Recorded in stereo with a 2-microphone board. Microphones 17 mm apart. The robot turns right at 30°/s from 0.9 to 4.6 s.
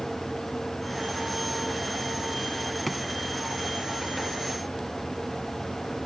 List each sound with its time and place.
2.9 s a drawer: centre (ahead or behind); by 3.0 s 5° left (ahead or behind)